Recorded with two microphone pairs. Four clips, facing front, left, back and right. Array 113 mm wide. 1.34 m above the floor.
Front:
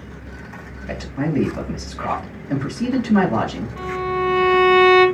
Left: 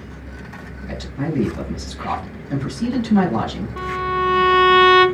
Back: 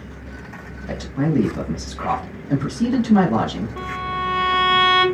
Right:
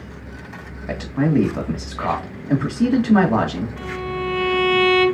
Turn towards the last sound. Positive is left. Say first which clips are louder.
# left 5 dB, front 7 dB
turn(degrees=120)